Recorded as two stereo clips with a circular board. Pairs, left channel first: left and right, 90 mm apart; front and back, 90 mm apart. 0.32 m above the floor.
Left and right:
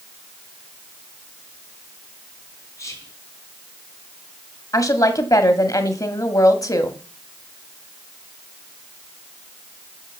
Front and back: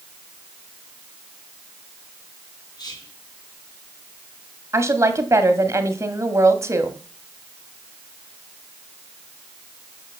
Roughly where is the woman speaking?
Behind left.